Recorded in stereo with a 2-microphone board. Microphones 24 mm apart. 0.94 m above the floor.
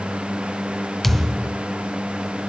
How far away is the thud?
About 0.8 m.